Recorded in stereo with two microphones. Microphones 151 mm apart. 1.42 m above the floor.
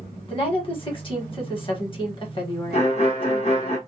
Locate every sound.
0.3 s a woman speaking: 35° left (ahead or behind), 1.2 m
2.7 s a violin: 45° left (ahead or behind), 0.8 m